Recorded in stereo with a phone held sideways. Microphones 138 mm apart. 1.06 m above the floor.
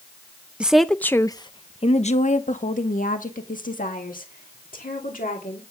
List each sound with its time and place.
0.6 s a woman speaking: 10° right (ahead or behind), 0.7 m; by 5.6 s 85° left, 2.5 m